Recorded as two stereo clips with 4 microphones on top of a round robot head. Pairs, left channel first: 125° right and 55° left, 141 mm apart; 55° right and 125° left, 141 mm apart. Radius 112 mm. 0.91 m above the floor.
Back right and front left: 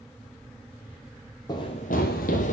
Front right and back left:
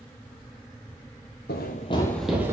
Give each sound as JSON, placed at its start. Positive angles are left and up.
{"t": 1.5, "sound": "running footsteps", "azimuth_deg": -65, "distance_m": 1.3}